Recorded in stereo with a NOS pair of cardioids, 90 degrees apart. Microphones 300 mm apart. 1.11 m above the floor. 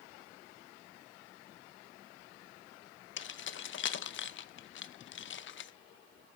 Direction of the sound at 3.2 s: 45° left.